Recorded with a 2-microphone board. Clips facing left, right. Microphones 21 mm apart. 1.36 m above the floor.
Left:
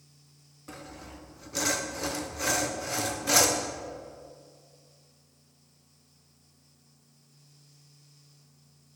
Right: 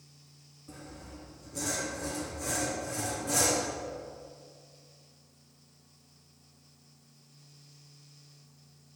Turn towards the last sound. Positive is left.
turn(degrees=60)  # may be behind; listen again after turning